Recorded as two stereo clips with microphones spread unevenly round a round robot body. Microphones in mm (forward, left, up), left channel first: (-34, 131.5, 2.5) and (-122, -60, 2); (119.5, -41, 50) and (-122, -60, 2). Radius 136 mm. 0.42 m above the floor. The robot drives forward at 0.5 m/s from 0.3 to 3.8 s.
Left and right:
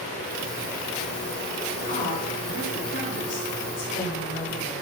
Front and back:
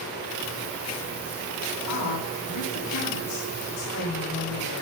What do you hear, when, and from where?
1.9 s a woman speaking: 20° left, 3.5 m; by 4.8 s 25° left, 2.5 m